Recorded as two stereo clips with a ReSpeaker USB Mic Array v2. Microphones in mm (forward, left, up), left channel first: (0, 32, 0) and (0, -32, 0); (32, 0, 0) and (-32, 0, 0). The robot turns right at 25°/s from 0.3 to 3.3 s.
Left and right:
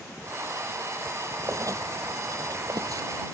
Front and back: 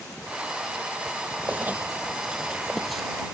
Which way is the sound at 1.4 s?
125° right.